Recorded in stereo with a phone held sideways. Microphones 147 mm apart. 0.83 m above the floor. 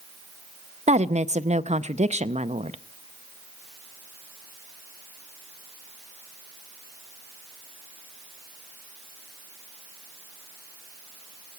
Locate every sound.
0.9 s a woman speaking: 50° right (ahead or behind), 0.5 m